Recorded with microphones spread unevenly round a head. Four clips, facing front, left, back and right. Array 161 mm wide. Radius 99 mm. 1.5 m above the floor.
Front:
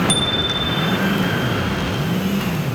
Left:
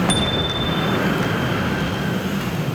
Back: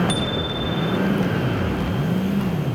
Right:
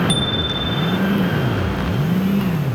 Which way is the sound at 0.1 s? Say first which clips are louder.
Left 1 dB, front 2 dB; 85° right.